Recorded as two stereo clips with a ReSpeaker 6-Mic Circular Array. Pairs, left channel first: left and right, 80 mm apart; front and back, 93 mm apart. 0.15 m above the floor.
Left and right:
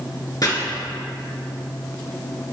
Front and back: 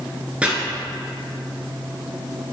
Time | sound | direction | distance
0.4 | chopping | 105° left | 2.5 m